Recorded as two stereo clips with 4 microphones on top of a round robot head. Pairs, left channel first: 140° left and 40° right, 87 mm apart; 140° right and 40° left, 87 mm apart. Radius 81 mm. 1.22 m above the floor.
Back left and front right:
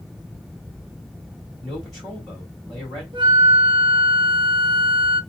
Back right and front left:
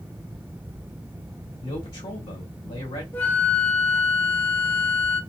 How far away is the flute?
About 0.5 m.